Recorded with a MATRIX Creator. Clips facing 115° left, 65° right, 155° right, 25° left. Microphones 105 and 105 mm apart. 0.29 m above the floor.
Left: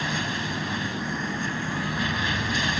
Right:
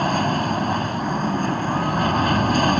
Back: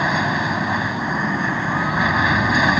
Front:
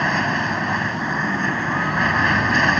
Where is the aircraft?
75° right.